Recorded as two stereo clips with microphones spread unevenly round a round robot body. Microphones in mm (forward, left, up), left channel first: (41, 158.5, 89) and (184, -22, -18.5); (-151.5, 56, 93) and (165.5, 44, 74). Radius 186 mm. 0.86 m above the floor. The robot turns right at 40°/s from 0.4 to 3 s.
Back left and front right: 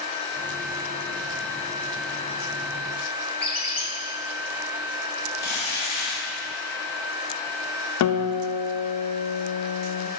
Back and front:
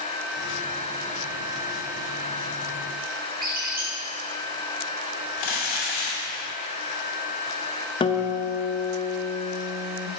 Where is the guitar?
100° left, 0.7 m.